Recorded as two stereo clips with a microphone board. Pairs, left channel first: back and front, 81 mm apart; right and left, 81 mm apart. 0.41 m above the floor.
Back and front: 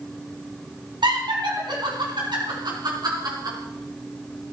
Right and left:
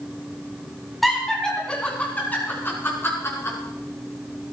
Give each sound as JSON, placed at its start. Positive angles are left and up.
{"t": 1.0, "sound": "laughter", "azimuth_deg": 0, "distance_m": 3.5}